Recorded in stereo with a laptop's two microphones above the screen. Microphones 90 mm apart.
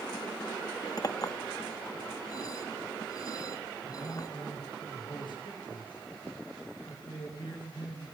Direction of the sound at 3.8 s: 60° left (ahead or behind).